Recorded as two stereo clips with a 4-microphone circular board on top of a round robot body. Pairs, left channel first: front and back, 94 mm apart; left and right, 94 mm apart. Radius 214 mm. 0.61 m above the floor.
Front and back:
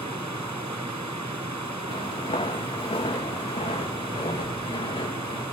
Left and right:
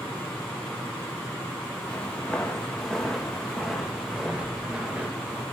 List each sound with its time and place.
1.9 s footsteps: 15° left, 4.5 m; by 5.4 s 15° right, 4 m